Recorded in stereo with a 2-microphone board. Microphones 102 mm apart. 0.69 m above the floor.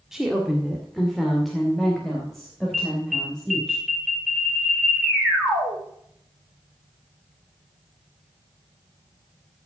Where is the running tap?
I don't hear a running tap.